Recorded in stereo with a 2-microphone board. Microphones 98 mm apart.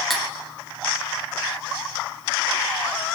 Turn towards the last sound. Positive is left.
turn(degrees=0)  # may be behind; listen again after turning